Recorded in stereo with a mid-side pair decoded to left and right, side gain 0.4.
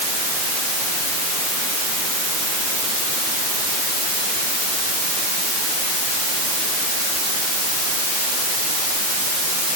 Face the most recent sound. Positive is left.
No sound to turn to.